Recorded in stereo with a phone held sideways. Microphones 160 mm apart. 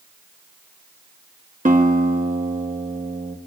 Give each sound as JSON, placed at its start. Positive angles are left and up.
{"t": 1.6, "sound": "a guitar", "side_deg": -55, "distance_m": 1.4}